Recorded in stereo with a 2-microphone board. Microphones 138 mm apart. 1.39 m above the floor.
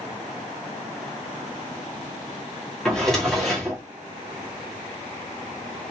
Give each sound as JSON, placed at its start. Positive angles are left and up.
{"t": 2.9, "sound": "a drawer", "side_deg": 5, "distance_m": 1.0}